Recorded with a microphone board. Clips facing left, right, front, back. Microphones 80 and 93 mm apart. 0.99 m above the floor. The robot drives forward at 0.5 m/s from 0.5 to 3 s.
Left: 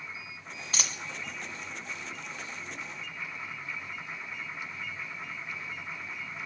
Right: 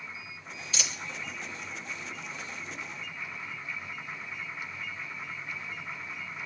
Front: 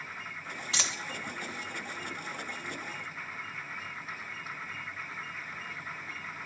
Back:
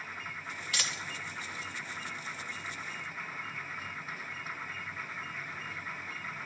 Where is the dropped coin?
60° left, 1.5 m; by 1.0 s 65° left, 1.4 m.